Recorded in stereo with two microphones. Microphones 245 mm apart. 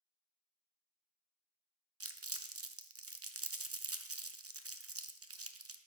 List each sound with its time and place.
2.0 s crumpling: 70° right (ahead or behind), 0.5 m